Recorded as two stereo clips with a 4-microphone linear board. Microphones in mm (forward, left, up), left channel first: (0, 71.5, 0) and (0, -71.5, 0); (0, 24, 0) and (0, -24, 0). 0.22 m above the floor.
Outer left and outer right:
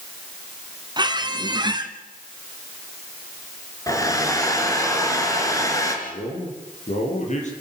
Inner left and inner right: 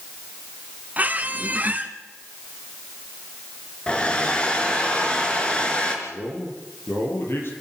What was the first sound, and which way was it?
A squeak, 30° right (ahead or behind).